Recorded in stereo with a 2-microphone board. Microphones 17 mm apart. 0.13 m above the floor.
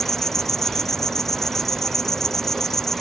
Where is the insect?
25° left (ahead or behind).